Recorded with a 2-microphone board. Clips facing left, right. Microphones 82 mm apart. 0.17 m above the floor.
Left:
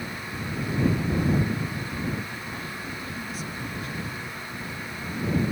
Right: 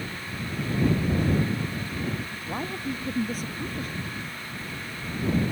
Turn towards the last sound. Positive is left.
turn(degrees=-40)  # may be behind; listen again after turning